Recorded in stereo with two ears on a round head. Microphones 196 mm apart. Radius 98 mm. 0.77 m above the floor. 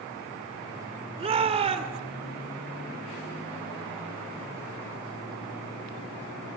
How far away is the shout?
About 2.5 m.